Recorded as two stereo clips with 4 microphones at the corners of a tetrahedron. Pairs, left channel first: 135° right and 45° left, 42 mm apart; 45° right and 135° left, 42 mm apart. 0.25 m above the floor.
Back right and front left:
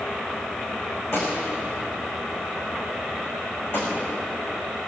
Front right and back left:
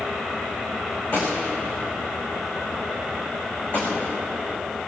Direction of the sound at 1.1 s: 105° right.